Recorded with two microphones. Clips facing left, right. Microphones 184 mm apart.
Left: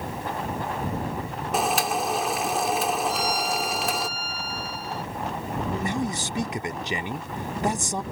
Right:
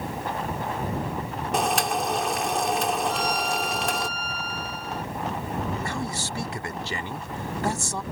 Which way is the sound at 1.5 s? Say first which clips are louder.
Even; centre (ahead or behind).